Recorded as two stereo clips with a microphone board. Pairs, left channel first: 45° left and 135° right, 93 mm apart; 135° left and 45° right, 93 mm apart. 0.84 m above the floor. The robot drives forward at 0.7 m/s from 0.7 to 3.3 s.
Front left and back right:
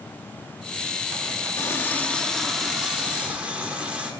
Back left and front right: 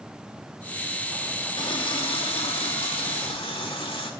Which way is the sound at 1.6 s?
100° left.